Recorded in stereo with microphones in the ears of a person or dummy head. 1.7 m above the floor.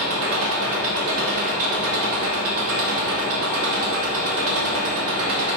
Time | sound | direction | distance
0.0 | an engine running | 75° right (ahead or behind) | 2 m